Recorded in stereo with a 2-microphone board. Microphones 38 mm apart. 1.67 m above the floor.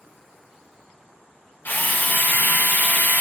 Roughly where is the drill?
Left.